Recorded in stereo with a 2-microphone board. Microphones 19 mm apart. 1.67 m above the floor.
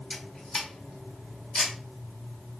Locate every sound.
0.1 s a camera shutter: 55° left (ahead or behind), 1.6 m